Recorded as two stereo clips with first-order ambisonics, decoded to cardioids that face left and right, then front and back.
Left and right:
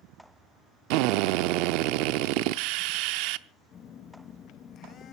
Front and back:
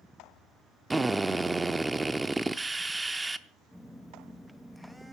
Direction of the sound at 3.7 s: 90° left.